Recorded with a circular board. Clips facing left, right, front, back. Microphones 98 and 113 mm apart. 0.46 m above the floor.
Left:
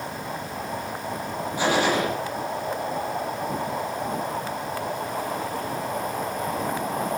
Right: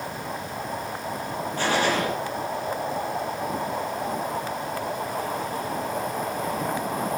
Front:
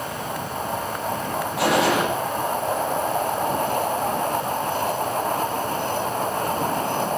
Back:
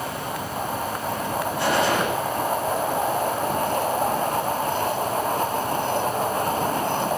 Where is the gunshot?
10° left, 6 m.